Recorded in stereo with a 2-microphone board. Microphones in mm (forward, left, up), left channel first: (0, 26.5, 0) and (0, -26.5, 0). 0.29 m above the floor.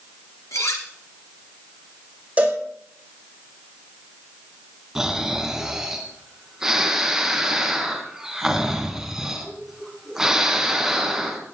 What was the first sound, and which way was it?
Cutlery clinking, 80° left.